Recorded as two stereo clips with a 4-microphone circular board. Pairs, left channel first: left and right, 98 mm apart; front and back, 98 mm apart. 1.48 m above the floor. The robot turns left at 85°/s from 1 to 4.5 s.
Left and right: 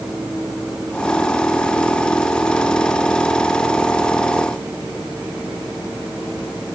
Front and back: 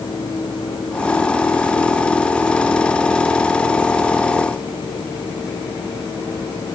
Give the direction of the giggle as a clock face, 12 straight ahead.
I don't hear a giggle.